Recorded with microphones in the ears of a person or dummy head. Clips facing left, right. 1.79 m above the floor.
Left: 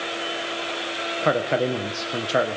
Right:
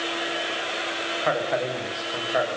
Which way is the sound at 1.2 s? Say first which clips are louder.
Left 4 dB; 45° left (ahead or behind).